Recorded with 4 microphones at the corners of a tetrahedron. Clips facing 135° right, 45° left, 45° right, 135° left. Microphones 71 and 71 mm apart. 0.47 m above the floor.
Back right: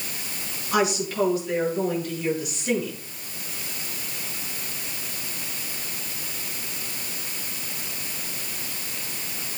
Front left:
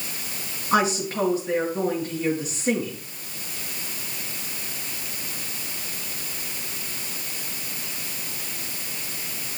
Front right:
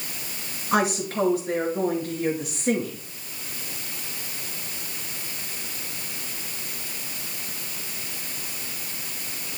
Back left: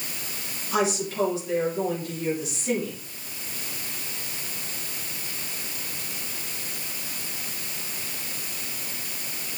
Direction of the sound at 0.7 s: 10° right.